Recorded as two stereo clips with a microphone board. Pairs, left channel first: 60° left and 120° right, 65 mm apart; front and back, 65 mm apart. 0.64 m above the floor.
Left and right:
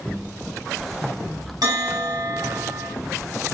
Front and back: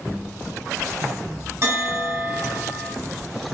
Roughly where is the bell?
Behind right.